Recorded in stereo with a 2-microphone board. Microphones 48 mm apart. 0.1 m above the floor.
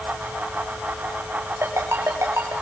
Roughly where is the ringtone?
Right.